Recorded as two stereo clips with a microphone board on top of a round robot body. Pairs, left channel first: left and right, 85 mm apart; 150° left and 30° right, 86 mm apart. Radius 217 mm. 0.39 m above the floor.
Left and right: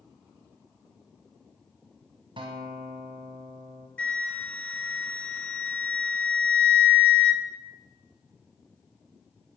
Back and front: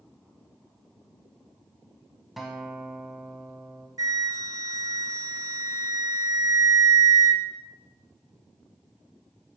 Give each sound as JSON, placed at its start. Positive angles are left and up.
{"t": 2.4, "sound": "a guitar", "azimuth_deg": -115, "distance_m": 0.6}
{"t": 4.0, "sound": "a flute", "azimuth_deg": 15, "distance_m": 0.9}